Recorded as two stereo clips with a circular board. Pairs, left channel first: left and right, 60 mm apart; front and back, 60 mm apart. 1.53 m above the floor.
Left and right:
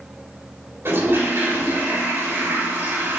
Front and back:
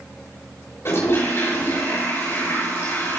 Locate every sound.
0.8 s a toilet flushing: 45° right, 4.5 m